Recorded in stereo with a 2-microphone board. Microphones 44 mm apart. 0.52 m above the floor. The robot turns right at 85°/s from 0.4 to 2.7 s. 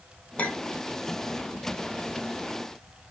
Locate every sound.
0.4 s a clink: 30° left (ahead or behind), 0.7 m; by 0.8 s 60° left (ahead or behind), 0.7 m